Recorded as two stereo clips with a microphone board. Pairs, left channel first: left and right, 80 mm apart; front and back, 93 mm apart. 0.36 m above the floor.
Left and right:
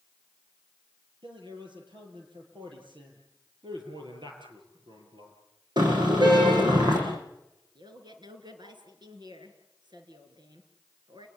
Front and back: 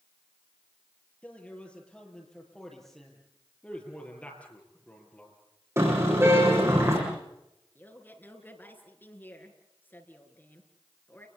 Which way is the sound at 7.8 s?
70° right.